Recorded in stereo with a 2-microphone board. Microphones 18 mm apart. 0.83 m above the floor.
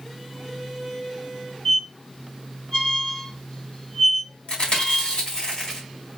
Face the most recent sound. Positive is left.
turn(degrees=65)  # may be behind; listen again after turning